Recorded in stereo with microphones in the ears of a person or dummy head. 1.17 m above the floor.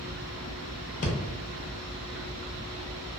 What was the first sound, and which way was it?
Breathing, 45° left (ahead or behind).